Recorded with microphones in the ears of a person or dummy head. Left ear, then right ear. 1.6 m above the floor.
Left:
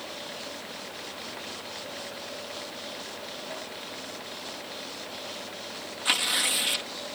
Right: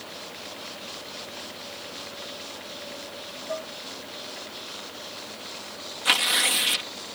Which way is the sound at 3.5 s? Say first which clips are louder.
Right 5 dB; 55° right (ahead or behind).